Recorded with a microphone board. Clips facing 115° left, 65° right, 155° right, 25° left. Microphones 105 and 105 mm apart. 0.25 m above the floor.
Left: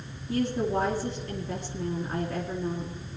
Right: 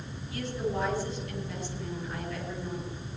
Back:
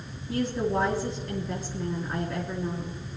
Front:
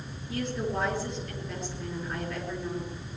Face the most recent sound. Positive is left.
turn(degrees=155)